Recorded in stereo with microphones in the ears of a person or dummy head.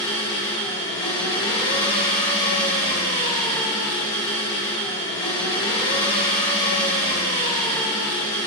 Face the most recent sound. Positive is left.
turn(degrees=25)  # may be behind; listen again after turning